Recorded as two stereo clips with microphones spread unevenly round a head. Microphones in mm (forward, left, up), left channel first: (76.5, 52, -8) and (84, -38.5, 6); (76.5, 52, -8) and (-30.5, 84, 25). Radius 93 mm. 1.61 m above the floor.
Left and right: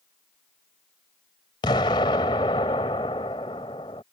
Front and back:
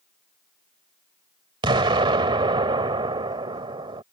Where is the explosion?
150° left.